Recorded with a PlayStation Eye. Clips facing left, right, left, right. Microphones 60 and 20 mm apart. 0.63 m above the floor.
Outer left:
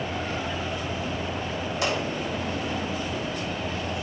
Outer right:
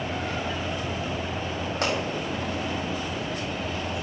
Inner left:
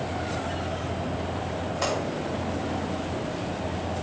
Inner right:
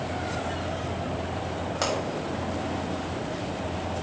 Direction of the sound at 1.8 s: 55° right (ahead or behind).